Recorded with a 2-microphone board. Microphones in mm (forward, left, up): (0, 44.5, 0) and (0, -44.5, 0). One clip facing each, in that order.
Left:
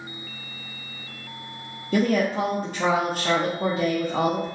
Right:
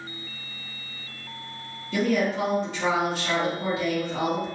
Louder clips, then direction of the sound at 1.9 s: Left 2 dB; 45° left (ahead or behind).